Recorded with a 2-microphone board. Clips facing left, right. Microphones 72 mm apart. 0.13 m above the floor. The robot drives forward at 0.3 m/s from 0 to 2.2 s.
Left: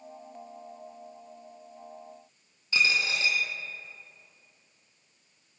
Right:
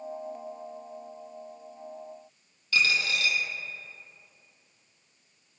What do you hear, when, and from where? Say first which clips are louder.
2.7 s a dropped coin: even; 25° left (ahead or behind), 0.5 m